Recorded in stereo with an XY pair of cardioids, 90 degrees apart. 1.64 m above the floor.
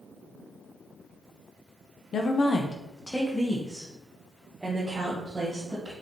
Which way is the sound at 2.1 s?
65° left.